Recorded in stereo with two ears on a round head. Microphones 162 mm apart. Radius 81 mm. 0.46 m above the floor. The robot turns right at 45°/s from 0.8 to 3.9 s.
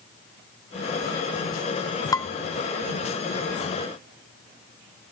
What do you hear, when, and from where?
2.1 s dishes clattering: 20° left (ahead or behind), 0.9 m; by 2.3 s 15° left (ahead or behind), 0.9 m